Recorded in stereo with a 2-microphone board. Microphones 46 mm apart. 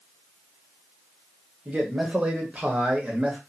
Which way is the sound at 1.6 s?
30° right (ahead or behind).